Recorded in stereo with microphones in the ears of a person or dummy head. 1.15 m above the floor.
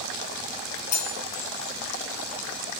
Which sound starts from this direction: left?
Cutlery clinking, at 0.9 s.